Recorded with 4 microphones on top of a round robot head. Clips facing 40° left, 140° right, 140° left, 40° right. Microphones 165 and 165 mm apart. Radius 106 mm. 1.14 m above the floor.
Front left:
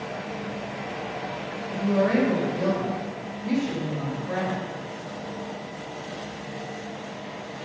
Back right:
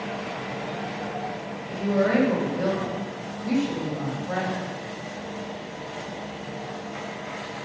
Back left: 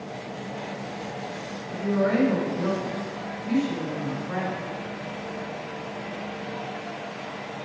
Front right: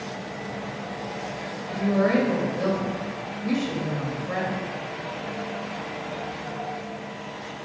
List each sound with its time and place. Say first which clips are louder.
1.7 s a woman speaking: even, front right 2 dB; 50° right, 2.5 m